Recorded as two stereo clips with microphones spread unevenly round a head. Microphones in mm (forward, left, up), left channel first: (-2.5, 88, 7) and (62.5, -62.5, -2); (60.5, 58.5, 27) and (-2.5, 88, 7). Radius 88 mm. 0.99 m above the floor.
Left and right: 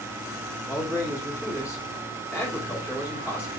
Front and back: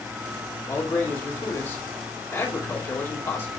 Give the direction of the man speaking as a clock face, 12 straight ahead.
11 o'clock.